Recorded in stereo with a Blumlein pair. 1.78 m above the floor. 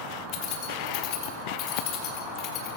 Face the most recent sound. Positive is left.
turn(degrees=35)